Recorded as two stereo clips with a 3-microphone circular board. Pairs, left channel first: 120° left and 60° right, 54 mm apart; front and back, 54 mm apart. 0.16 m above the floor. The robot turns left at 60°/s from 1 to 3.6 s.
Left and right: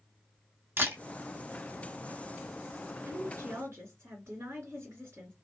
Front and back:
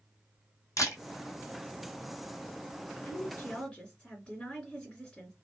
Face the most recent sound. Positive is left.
turn(degrees=-70)